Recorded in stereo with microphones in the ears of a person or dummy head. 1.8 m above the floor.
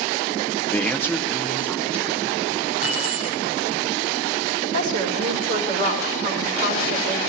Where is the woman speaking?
40° right (ahead or behind), 5.5 m.